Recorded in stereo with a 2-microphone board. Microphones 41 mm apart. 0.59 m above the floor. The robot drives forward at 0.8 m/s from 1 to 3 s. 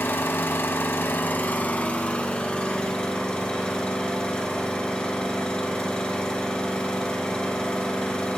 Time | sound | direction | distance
0.0 | an engine running | 65° left (ahead or behind) | 0.8 m